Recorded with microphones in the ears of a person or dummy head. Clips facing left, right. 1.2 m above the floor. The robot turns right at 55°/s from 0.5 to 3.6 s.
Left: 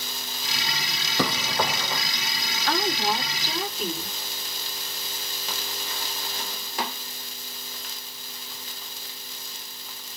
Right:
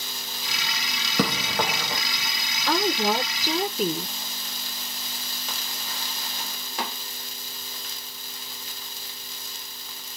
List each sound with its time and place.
1.2 s running footsteps: 55° right (ahead or behind), 1.9 m; by 2.0 s 35° right (ahead or behind), 1.9 m
2.7 s a woman speaking: 95° right, 1.2 m; by 4.1 s 45° right, 1.2 m